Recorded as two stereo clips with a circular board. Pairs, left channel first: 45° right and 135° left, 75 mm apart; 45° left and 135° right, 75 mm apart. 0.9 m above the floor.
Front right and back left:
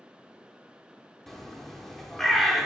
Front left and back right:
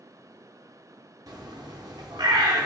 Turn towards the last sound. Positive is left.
turn(degrees=-130)